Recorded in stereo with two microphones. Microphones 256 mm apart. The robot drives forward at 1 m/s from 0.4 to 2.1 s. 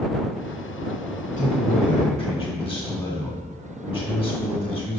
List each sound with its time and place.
1.4 s a man speaking: 30° left (ahead or behind), 1.0 m; by 5.0 s 20° left (ahead or behind), 1.3 m